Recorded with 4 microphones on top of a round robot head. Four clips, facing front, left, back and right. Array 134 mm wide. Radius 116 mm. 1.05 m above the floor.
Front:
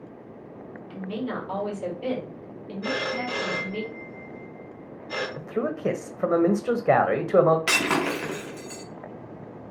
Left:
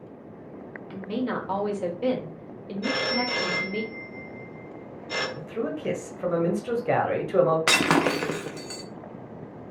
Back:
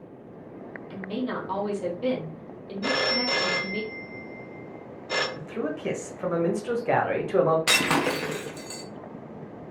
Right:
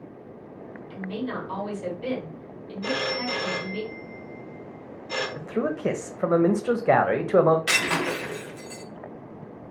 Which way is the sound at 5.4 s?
55° right.